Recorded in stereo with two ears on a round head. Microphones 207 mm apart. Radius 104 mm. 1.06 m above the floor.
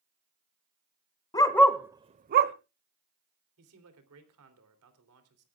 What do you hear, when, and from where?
1.3 s a dog barking: 20° left (ahead or behind), 1.2 m; by 2.5 s 45° right (ahead or behind), 1.1 m
3.6 s a man speaking: 70° right (ahead or behind), 3 m